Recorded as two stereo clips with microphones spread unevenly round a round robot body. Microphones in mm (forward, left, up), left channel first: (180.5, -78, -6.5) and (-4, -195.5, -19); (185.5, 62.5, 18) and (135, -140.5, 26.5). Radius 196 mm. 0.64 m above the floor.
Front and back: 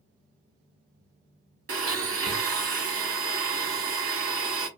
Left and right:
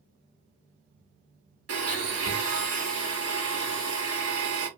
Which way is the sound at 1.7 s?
130° right.